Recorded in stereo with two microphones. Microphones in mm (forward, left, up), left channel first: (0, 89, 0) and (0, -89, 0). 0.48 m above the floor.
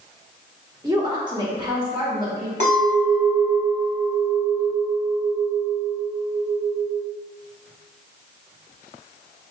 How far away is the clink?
About 1.8 m.